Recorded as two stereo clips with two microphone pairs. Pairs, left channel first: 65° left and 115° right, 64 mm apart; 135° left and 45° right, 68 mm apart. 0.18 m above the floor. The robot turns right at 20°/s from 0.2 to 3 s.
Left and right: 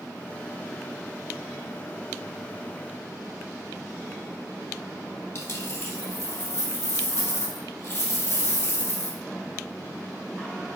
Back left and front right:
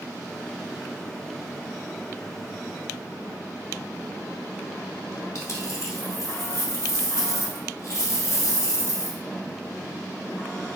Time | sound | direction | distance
5.3 | a dropped coin | 100° left | 1.3 m